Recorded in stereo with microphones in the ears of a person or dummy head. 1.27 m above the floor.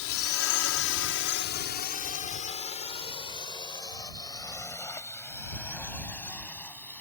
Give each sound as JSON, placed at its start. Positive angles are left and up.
{"t": 0.0, "sound": "a drone", "side_deg": 70}